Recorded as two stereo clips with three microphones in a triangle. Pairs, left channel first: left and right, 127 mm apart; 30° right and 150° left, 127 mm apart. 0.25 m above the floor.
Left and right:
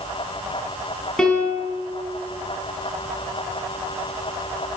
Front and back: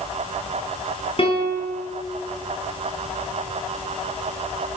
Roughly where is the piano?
Ahead.